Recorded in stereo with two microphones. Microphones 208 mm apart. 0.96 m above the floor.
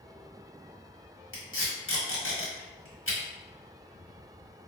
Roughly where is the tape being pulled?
Left.